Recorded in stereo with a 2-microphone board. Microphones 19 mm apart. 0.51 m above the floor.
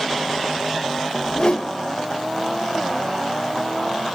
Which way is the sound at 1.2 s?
55° left (ahead or behind).